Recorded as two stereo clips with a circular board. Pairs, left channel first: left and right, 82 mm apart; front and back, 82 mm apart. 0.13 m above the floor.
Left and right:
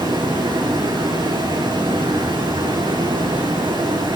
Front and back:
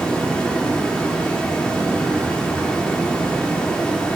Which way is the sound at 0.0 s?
80° right.